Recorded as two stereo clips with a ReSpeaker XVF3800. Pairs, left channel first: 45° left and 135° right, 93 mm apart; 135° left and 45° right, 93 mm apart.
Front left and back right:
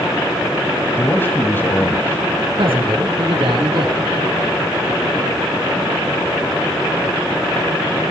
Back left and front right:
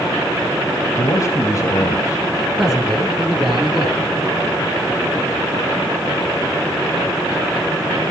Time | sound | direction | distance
1.0 | a man speaking | 105° left | 2.0 m
2.6 | a man speaking | 130° right | 4.5 m